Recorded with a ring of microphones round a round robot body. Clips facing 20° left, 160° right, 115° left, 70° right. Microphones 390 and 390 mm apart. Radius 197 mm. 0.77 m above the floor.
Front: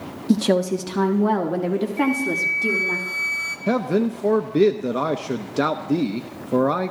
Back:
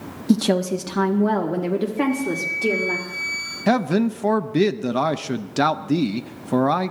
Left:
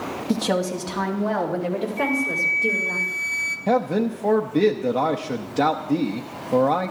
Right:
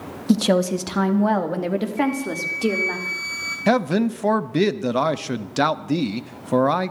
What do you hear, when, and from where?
0.3 s a woman speaking: 75° right, 1.2 m; by 3.0 s 60° right, 2.5 m
2.0 s a flute: 35° left, 2.5 m
3.7 s a man speaking: 95° right, 0.6 m